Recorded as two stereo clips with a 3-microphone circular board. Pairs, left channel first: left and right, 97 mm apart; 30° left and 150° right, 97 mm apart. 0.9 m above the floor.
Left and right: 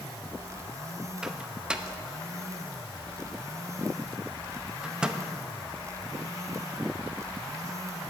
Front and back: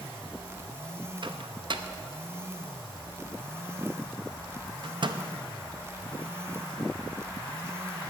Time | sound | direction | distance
1.2 | a microwave | 170° right | 0.7 m